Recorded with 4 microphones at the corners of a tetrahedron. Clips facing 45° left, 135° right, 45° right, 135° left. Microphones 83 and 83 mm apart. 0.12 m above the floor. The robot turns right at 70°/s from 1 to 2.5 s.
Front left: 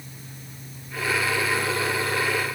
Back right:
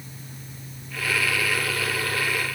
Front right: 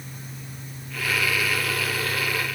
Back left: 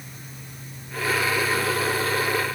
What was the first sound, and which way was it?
Only background noise.